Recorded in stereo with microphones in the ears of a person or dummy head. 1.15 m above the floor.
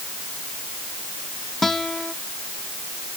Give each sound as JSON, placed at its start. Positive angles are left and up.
{"t": 1.6, "sound": "a guitar", "side_deg": 5}